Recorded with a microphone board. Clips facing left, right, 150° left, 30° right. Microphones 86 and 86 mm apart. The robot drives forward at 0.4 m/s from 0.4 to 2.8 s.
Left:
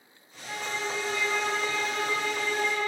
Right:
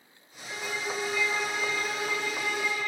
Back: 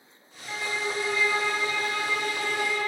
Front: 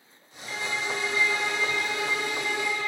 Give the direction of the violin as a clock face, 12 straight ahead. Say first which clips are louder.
Left 1 dB, even; 9 o'clock.